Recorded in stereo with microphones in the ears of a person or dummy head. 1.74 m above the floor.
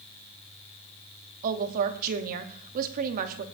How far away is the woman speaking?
About 1.1 m.